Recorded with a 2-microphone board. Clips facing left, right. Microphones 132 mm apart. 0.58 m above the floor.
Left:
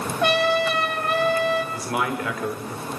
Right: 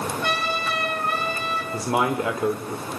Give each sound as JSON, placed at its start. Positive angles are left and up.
{"t": 0.2, "sound": "a trumpet", "side_deg": 75, "distance_m": 4.0}
{"t": 1.7, "sound": "a man speaking", "side_deg": -25, "distance_m": 1.4}